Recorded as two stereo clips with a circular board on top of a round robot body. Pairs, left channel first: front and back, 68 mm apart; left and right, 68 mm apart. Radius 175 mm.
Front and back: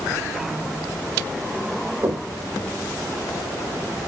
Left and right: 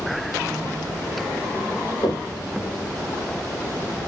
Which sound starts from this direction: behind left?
Knocking, at 2.0 s.